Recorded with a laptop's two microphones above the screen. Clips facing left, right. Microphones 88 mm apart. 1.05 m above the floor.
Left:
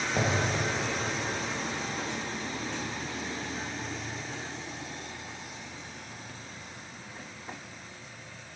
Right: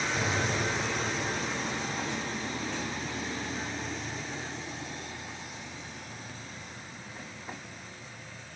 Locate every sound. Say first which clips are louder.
0.2 s an explosion: left 4 dB; 50° left (ahead or behind), 1.2 m